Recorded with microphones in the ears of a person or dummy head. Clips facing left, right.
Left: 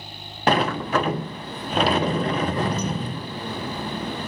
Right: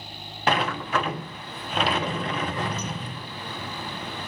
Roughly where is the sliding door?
Left.